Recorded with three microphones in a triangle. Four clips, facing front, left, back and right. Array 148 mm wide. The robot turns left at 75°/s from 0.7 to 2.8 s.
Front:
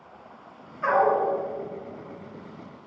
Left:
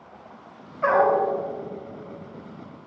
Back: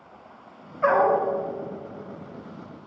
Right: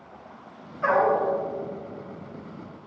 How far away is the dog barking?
About 3.5 m.